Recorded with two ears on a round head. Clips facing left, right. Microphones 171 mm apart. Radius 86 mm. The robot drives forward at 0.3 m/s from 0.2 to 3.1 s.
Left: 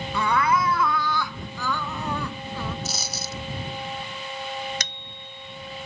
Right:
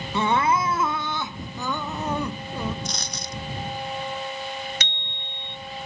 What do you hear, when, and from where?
0.1 s crying: 25° right (ahead or behind); by 2.8 s 20° right (ahead or behind)
2.9 s a dropped coin: 5° left (ahead or behind)
4.8 s a bicycle bell: 35° left (ahead or behind)